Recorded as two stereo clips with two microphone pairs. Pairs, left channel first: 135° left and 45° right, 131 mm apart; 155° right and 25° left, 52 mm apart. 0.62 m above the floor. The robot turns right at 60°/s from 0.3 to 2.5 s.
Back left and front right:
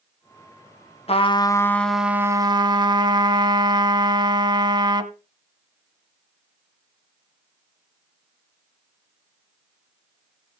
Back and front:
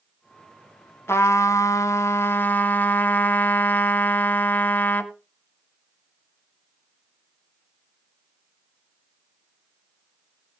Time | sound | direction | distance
1.1 | a trumpet | 175° left | 1.4 m